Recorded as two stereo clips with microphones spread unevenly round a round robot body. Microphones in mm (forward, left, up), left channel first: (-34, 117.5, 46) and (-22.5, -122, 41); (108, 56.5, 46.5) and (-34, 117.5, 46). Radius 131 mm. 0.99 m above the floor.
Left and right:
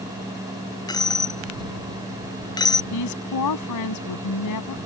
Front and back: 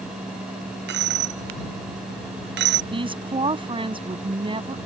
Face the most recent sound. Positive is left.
turn(degrees=100)